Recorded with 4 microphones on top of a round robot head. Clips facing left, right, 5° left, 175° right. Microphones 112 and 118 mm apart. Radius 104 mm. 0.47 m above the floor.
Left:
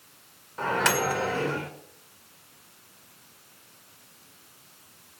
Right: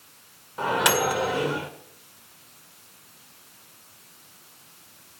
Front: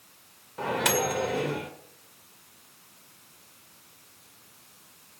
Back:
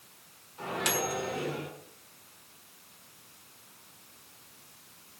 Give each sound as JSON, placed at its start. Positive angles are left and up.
{"t": 0.6, "sound": "a microwave", "azimuth_deg": -15, "distance_m": 1.8}